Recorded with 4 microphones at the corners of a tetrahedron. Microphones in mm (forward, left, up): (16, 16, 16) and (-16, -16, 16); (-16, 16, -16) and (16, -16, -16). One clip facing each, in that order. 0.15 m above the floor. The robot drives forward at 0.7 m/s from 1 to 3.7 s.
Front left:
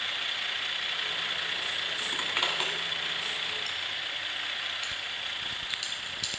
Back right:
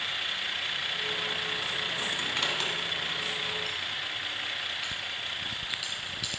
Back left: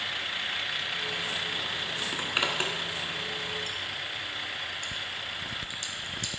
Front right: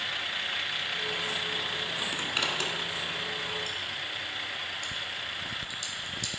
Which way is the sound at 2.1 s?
75° left.